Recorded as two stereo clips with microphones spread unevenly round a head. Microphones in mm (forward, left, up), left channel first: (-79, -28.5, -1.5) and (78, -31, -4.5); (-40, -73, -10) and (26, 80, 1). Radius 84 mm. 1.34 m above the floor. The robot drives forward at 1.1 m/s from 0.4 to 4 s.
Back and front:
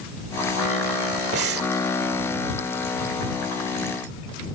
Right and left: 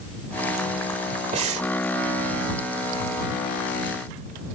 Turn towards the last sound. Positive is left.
turn(degrees=145)